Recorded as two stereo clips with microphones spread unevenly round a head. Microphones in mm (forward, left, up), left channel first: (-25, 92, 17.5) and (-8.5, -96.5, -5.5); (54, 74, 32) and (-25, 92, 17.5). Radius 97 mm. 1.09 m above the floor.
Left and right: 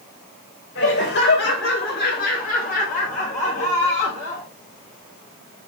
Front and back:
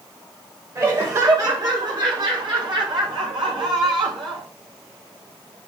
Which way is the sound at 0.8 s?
125° left.